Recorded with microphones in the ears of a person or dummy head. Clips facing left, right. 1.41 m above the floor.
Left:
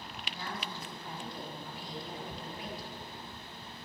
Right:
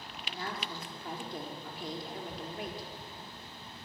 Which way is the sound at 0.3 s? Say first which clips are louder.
Right 2 dB; 50° right (ahead or behind).